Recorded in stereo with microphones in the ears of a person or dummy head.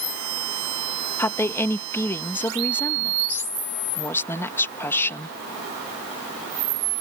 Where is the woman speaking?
20° left (ahead or behind).